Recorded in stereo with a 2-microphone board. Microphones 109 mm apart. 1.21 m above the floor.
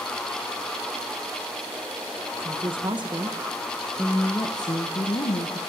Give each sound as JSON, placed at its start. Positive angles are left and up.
{"t": 2.4, "sound": "a woman speaking", "side_deg": -55, "distance_m": 1.4}